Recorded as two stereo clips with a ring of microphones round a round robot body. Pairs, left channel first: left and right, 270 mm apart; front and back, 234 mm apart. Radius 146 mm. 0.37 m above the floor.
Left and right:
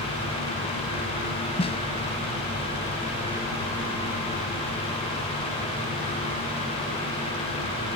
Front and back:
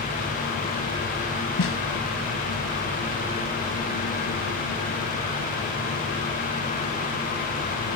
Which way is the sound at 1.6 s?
20° left.